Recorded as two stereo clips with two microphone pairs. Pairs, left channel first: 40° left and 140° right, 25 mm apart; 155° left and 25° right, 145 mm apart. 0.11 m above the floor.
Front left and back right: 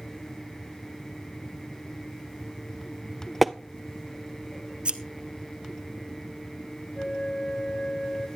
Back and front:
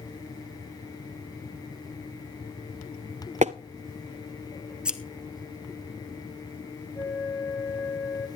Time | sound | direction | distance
3.4 | tapping | 50° right | 0.5 m
4.8 | scissors | 105° right | 0.9 m
7.0 | a flute | 80° left | 2.5 m